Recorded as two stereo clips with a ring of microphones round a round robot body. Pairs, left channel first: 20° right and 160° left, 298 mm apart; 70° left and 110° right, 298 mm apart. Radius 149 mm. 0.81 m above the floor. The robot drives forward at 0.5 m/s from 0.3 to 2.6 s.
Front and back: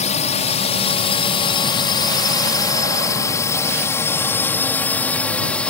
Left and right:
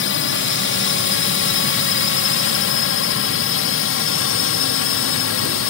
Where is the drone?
35° left; by 5.7 s 60° left.